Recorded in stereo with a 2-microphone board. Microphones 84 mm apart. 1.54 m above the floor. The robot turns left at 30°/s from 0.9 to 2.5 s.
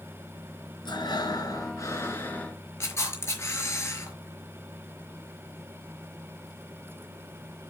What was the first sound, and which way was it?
Breathing, 70° left.